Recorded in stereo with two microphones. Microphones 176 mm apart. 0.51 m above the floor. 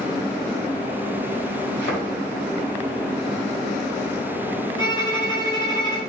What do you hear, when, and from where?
1.8 s a thud: 80° left, 1.5 m
4.8 s a violin: 25° left (ahead or behind), 1.4 m